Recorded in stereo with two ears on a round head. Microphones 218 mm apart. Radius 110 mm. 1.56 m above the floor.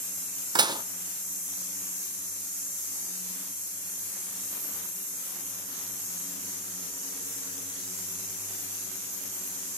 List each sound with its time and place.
0.6 s dishes clattering: 15° right (ahead or behind), 0.6 m